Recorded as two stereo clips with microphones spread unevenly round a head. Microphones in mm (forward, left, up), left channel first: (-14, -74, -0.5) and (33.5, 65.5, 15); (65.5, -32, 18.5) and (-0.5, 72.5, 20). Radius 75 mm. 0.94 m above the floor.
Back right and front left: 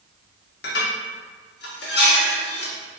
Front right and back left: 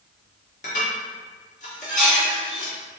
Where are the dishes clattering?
100° right, 1.1 m.